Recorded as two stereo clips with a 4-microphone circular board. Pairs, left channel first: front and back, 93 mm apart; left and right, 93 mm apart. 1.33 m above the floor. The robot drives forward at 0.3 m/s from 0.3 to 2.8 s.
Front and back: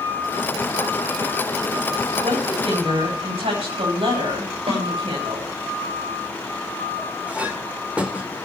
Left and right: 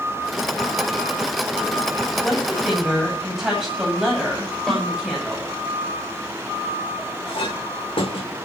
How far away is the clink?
About 2.5 m.